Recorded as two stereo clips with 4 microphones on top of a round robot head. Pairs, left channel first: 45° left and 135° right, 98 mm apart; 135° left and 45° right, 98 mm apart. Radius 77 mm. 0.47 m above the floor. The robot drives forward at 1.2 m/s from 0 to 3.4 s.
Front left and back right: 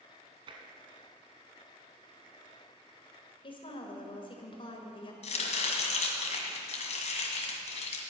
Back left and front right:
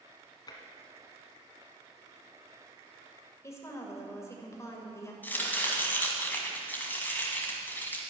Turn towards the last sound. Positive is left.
turn(degrees=60)